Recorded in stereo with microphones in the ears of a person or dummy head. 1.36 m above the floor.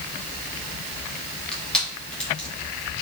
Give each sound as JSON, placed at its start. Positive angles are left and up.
{"t": 1.5, "sound": "crushing", "side_deg": 5, "distance_m": 3.0}